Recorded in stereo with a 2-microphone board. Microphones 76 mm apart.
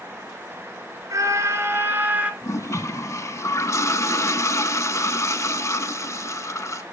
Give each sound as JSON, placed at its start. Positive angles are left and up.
{"t": 1.1, "sound": "a scream", "side_deg": -45, "distance_m": 1.8}
{"t": 2.4, "sound": "a toilet flushing", "side_deg": 40, "distance_m": 0.6}